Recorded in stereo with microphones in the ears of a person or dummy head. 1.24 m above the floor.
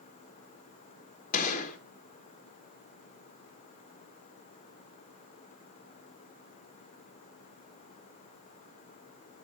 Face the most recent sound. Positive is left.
turn(degrees=45)  # may be behind; listen again after turning